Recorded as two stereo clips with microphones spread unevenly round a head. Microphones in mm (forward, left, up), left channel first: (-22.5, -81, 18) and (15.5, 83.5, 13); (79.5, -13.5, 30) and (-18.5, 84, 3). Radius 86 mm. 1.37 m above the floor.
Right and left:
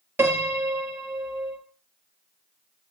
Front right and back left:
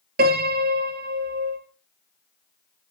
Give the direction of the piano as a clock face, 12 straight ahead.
7 o'clock.